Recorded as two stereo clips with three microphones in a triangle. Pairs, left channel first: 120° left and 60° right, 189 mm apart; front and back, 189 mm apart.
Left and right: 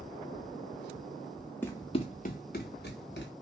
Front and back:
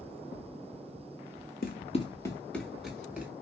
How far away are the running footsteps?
About 0.7 m.